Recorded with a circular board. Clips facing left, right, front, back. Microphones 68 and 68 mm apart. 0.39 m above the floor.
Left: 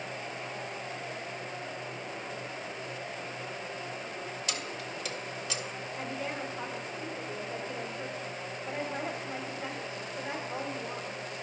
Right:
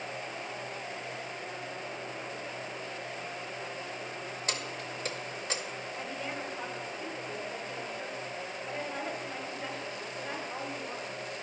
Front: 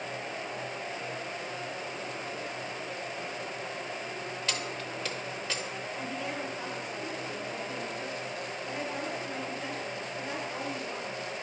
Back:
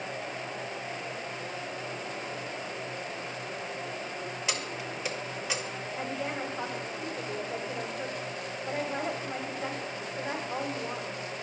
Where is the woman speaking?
170° left, 1.3 m.